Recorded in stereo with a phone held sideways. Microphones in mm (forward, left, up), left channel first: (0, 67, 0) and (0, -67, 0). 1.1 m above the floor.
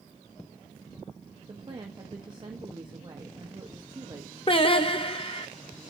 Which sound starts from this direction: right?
A woman speaking, at 1.5 s.